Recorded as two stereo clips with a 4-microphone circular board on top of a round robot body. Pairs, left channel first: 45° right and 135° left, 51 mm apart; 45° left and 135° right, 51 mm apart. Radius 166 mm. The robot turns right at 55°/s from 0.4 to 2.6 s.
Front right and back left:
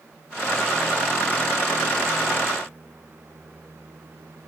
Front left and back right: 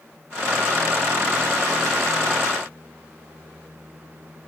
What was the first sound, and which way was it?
Only background noise.